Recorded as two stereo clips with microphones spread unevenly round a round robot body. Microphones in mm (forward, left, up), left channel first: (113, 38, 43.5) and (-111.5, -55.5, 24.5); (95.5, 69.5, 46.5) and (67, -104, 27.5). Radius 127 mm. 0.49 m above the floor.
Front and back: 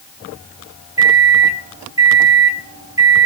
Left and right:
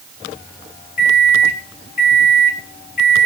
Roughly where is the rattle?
No rattle in this recording.